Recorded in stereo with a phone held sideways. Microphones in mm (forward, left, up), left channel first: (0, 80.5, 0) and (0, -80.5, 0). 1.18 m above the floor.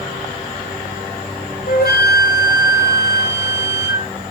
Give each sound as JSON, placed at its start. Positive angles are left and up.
{"t": 1.7, "sound": "a flute", "side_deg": 75, "distance_m": 0.6}